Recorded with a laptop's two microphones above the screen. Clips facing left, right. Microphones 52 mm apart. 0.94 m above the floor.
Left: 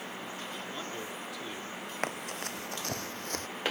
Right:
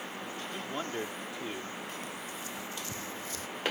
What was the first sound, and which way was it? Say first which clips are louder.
A man speaking: right 6 dB; 30° right (ahead or behind).